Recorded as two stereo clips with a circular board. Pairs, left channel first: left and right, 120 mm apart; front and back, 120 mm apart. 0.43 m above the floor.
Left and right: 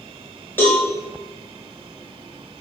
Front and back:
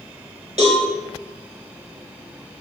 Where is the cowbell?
160° left, 4 m.